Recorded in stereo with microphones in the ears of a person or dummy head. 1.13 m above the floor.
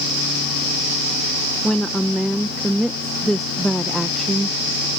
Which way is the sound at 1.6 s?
Centre (ahead or behind).